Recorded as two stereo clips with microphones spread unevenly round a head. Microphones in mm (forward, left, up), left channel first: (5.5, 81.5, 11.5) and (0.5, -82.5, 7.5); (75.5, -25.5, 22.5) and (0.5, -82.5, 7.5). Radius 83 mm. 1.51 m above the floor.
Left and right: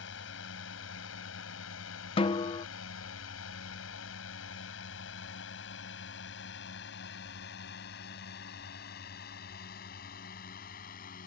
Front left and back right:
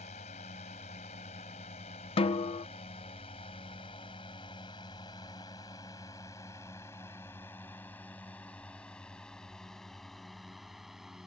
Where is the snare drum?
30° left.